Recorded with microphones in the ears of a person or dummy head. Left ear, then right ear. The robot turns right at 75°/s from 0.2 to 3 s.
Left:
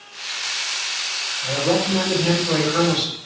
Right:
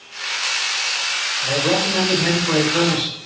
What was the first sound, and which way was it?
A man speaking, 80° right.